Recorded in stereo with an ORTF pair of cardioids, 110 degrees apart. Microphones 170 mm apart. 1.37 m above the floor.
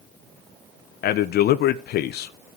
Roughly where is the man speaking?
Ahead left.